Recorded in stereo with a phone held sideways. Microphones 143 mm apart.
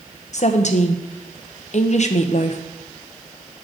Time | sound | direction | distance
0.3 | a woman speaking | 55° left (ahead or behind) | 0.6 m